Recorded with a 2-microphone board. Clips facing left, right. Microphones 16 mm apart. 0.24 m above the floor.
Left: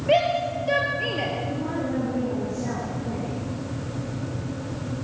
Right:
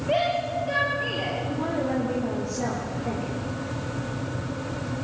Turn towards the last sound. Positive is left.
turn(degrees=-65)  # may be behind; listen again after turning